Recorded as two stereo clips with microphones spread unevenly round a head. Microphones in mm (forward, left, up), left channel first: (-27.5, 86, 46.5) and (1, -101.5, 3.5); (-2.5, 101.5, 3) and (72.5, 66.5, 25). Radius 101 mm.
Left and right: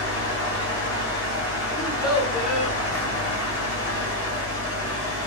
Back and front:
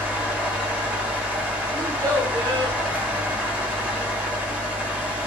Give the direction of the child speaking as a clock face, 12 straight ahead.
12 o'clock.